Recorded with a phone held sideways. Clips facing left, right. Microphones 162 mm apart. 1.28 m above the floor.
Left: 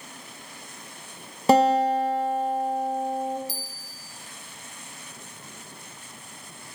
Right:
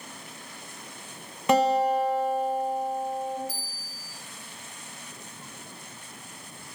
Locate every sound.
1.5 s a guitar: 35° left (ahead or behind), 0.7 m
3.5 s a bell: 80° left, 0.6 m